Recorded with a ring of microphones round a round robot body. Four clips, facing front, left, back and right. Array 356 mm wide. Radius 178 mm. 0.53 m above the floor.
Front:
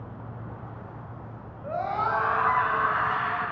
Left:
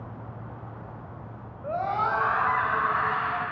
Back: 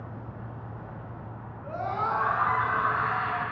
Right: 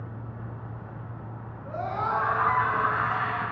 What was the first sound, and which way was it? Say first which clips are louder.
A scream: left 3 dB, front 2 dB; 75° left.